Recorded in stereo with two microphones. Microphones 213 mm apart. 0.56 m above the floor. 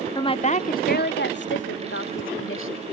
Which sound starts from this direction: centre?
A woman speaking, at 0.1 s.